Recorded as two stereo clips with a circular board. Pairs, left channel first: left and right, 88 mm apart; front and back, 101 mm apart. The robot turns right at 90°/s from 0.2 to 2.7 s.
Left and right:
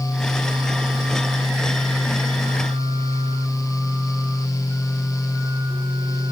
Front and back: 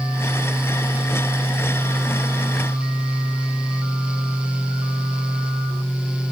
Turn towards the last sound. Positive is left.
No sound to turn to.